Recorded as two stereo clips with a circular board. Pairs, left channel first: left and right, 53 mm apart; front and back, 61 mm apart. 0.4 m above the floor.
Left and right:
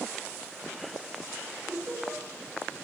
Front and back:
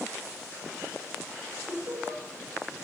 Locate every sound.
1.7 s laughter: 140° right, 5.5 m